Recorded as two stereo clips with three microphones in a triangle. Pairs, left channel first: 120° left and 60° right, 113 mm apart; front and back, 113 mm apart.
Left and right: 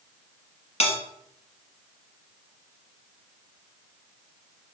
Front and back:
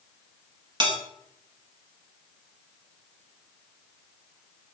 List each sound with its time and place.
0.8 s a bell: 140° left, 0.8 m